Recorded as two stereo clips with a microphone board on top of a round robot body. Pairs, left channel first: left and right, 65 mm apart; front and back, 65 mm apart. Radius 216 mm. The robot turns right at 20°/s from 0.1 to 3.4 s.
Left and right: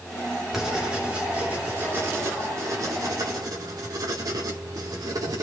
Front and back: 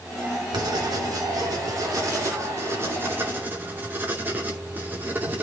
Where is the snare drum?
I don't hear a snare drum.